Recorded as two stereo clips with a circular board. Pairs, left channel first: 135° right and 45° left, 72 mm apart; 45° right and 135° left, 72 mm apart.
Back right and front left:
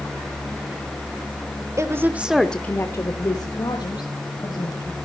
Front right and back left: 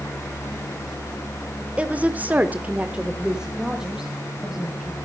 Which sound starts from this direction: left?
A woman speaking, at 1.8 s.